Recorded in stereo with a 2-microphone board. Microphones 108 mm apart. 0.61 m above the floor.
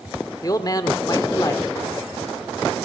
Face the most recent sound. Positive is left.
turn(degrees=35)  # may be behind; listen again after turning